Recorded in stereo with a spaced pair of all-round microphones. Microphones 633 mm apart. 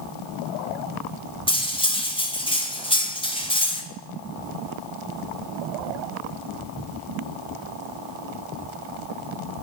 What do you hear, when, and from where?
1.5 s cutlery clinking: 10° left (ahead or behind), 1.0 m